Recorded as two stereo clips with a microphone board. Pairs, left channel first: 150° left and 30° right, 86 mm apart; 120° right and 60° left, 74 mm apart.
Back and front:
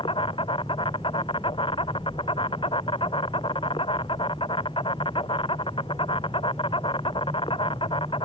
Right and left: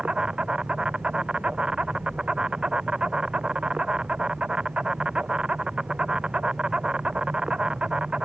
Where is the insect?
140° left.